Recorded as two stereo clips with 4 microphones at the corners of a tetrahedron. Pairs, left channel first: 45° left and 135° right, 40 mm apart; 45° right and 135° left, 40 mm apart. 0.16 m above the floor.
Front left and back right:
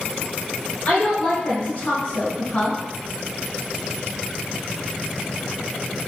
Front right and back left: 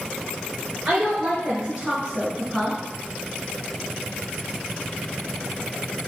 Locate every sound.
0.8 s a woman speaking: 95° left, 1.7 m; by 2.8 s 20° left, 1.4 m